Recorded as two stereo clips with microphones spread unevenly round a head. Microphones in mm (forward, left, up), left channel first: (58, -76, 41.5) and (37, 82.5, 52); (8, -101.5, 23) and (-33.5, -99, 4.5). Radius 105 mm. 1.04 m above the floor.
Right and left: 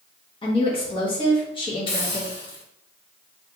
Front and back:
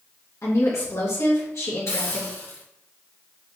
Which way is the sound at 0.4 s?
25° right.